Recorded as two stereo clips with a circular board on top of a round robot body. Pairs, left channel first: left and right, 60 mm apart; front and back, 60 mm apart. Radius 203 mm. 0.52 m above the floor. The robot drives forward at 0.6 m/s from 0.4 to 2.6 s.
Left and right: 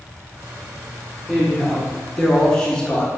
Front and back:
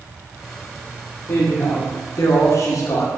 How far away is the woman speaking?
About 2.5 m.